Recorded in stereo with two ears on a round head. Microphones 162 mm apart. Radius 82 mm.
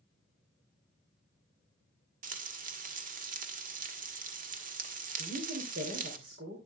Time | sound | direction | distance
2.2 | frying | 50° right (ahead or behind) | 1.6 m
5.2 | a woman speaking | 55° right (ahead or behind) | 3.5 m